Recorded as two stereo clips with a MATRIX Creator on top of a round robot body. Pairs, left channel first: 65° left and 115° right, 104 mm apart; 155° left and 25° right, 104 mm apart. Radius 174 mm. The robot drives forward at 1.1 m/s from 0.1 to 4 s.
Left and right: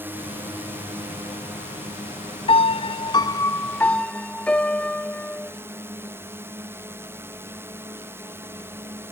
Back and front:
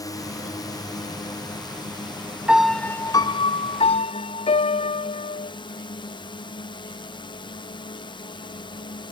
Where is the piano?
55° left; by 5.5 s 150° left.